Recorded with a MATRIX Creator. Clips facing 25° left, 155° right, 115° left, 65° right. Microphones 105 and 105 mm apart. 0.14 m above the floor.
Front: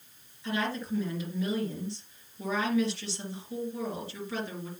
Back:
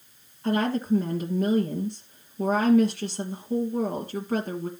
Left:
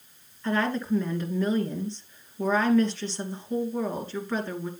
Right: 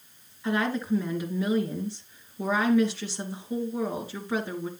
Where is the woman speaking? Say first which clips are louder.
Back 8 dB, left 1 dB; 145° right, 2.5 m.